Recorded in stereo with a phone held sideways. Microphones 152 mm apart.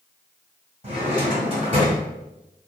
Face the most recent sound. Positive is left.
turn(degrees=-40)  # may be behind; listen again after turning